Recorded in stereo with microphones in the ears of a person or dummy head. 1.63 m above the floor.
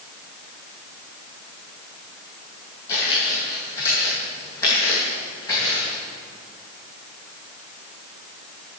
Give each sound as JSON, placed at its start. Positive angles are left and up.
{"t": 2.9, "sound": "footsteps", "side_deg": 15, "distance_m": 2.5}